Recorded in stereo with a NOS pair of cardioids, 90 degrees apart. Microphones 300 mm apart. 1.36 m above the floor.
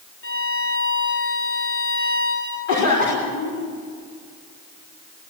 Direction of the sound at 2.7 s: 70° left.